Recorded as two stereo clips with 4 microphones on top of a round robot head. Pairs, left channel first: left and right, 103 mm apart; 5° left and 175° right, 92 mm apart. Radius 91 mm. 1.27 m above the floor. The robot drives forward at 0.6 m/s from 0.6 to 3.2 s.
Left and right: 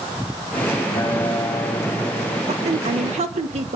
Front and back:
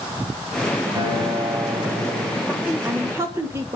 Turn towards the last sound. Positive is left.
turn(degrees=-110)